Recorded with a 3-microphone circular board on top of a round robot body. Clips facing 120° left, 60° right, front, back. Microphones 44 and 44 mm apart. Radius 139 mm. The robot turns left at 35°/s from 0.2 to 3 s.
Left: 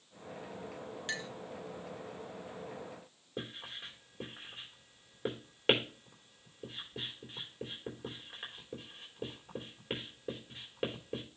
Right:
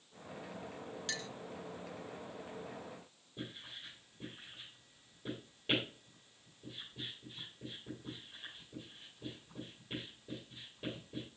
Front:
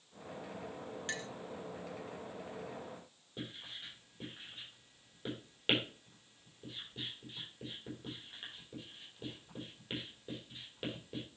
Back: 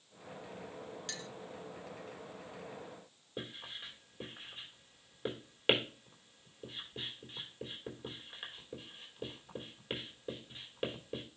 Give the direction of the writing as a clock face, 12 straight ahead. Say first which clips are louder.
Left 4 dB, back 2 dB; 8 o'clock.